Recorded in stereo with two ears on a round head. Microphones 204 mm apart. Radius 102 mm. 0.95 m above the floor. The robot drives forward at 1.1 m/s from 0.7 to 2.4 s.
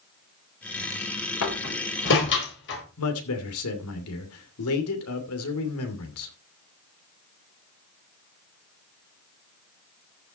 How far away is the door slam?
About 3.5 m.